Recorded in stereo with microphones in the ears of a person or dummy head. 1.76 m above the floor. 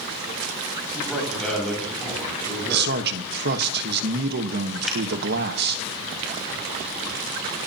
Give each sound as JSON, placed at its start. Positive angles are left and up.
{"t": 0.9, "sound": "a man speaking", "side_deg": 5, "distance_m": 9.0}
{"t": 2.7, "sound": "a man speaking", "side_deg": -60, "distance_m": 1.4}
{"t": 4.9, "sound": "a finger snap", "side_deg": 5, "distance_m": 3.5}